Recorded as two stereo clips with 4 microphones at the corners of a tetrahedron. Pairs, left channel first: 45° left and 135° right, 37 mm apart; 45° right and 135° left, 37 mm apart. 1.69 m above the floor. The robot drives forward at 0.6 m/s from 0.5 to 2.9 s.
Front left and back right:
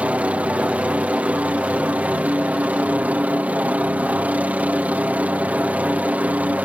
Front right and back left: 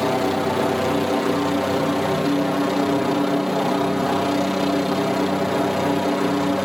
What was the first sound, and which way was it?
A helicopter, 135° right.